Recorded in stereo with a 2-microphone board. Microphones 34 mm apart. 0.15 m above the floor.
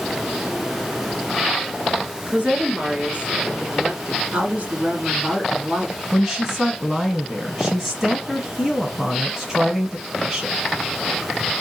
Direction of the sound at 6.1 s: 10° right (ahead or behind).